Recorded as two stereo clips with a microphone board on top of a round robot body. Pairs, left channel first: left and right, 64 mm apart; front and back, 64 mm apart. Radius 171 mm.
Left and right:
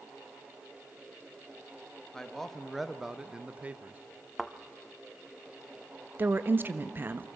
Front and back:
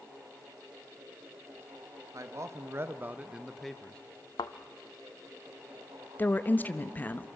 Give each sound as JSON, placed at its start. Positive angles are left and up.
{"t": 2.1, "sound": "a man speaking", "azimuth_deg": 170, "distance_m": 1.5}
{"t": 4.4, "sound": "a thud", "azimuth_deg": 0, "distance_m": 0.6}
{"t": 6.2, "sound": "a woman speaking", "azimuth_deg": -50, "distance_m": 1.1}